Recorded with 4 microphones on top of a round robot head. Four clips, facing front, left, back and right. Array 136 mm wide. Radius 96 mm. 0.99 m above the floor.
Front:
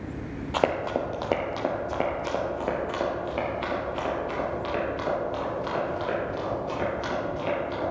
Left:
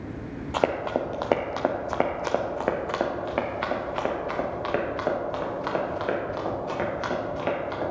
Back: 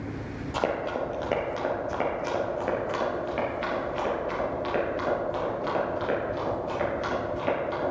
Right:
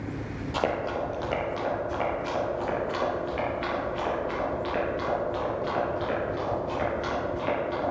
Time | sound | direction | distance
0.5 | running footsteps | 45° left | 1.0 m